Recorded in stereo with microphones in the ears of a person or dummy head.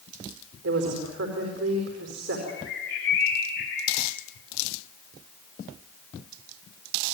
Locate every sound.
0.6 s a woman speaking: 85° right, 4.5 m
2.5 s a bird: 70° left (ahead or behind), 6.5 m